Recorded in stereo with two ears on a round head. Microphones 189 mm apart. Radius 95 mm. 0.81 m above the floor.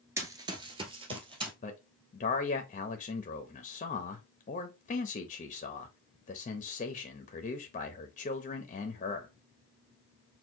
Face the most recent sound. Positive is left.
turn(degrees=35)  # may be behind; listen again after turning